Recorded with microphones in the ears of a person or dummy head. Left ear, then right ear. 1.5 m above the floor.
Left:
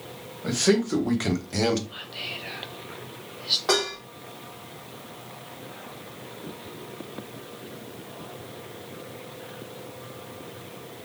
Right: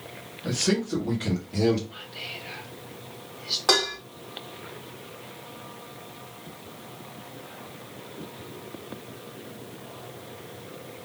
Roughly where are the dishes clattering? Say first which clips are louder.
Right 5 dB; right.